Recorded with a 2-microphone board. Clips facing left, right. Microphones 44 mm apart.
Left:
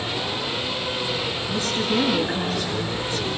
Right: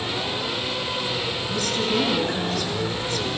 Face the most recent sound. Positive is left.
turn(degrees=15)  # may be behind; listen again after turning